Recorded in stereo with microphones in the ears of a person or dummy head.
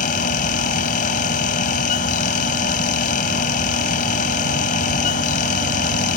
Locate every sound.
0.0 s a fan: 50° left (ahead or behind)